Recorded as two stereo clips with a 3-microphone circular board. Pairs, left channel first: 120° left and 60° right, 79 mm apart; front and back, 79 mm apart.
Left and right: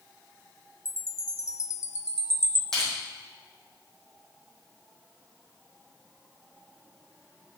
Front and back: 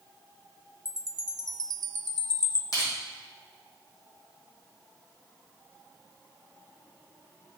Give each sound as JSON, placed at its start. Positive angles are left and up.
{"t": 0.8, "sound": "a chime", "azimuth_deg": 160, "distance_m": 0.5}
{"t": 2.7, "sound": "crushing", "azimuth_deg": 35, "distance_m": 3.5}